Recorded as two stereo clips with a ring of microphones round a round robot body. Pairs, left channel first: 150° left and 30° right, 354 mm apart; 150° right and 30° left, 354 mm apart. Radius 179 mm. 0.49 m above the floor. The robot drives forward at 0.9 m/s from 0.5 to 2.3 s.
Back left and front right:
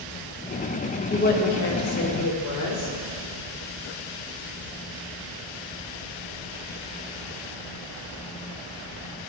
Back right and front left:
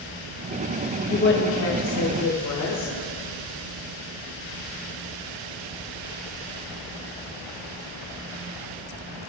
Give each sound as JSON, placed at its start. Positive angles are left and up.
{"t": 1.1, "sound": "a woman speaking", "azimuth_deg": -175, "distance_m": 1.2}